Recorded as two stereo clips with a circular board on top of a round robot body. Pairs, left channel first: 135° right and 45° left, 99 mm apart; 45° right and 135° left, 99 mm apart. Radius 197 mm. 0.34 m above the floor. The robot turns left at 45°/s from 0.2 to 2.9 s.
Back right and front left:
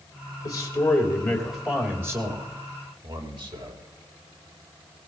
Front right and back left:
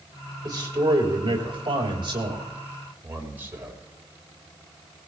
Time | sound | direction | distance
0.4 | a man speaking | straight behind | 4 m